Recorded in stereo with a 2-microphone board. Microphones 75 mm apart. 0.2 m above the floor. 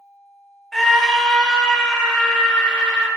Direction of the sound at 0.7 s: 5° left (ahead or behind).